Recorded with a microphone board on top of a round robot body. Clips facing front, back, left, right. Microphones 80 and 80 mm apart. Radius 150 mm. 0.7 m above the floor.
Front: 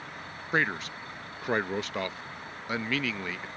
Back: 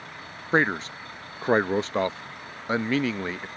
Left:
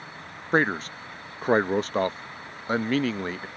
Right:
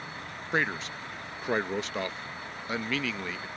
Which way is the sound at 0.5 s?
125° left.